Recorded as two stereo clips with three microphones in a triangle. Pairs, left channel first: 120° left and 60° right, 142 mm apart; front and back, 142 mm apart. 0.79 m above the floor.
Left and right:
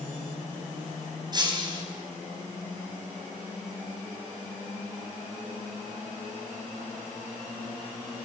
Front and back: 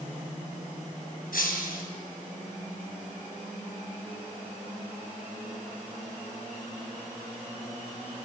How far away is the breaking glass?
About 4 m.